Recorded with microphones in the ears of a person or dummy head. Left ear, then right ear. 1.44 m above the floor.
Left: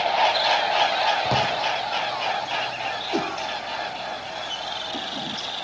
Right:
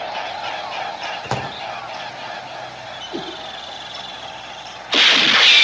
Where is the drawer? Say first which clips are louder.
Left 3 dB; 35° right (ahead or behind), 3 m.